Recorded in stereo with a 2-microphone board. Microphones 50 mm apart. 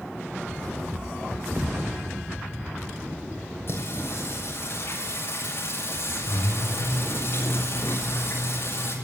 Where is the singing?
50° left (ahead or behind), 7 m.